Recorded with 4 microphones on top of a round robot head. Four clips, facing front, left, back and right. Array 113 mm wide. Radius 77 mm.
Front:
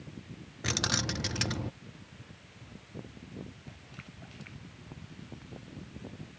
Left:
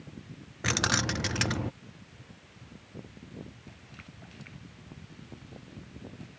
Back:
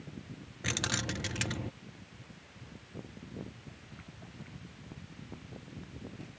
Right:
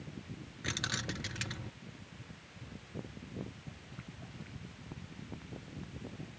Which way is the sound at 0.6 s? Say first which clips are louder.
Left 10 dB, front 2 dB; 80° left.